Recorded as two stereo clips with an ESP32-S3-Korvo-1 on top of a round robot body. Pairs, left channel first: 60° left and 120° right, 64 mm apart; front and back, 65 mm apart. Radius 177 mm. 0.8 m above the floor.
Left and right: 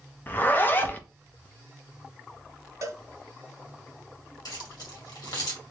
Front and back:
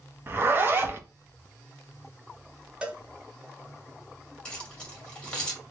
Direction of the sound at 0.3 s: 125° left.